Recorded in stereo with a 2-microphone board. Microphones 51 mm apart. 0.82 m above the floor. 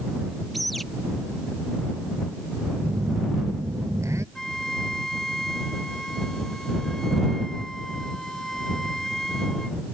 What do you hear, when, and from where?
0.5 s a bird: centre (ahead or behind)
2.8 s a phone buzzing: 70° right (ahead or behind)
4.3 s a flute: 10° left (ahead or behind)